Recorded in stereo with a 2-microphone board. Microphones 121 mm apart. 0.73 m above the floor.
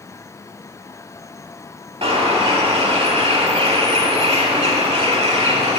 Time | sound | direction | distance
2.0 | a bird | 55° right (ahead or behind) | 1.3 m